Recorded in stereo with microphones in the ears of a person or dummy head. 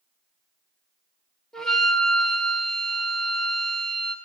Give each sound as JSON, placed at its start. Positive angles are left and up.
{"t": 1.5, "sound": "a flute", "side_deg": 5, "distance_m": 1.5}